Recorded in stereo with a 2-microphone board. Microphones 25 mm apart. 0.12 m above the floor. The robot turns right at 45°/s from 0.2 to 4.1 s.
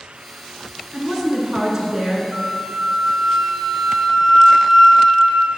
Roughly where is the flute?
Right.